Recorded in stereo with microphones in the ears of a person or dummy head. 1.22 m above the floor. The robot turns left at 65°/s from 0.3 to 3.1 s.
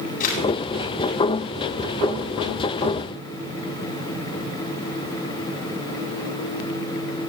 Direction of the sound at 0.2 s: 50° left (ahead or behind).